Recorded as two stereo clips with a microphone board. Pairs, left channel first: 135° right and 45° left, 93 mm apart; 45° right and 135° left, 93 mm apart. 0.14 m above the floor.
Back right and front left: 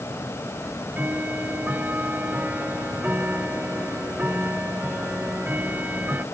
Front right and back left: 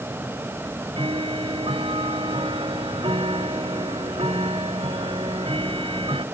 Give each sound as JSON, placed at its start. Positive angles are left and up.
{"t": 0.6, "sound": "ticking", "azimuth_deg": 115}